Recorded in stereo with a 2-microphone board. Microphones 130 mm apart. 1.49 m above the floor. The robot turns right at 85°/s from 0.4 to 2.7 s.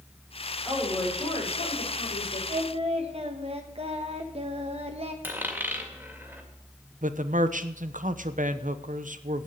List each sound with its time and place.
0.7 s a woman speaking: 5° right, 5.5 m; by 2.4 s 140° left, 5.5 m
2.5 s singing: 65° right (ahead or behind), 1.3 m; by 5.1 s 50° right (ahead or behind), 1.3 m
5.2 s a dropped coin: 15° right (ahead or behind), 2.0 m
7.0 s a man speaking: 85° right, 0.8 m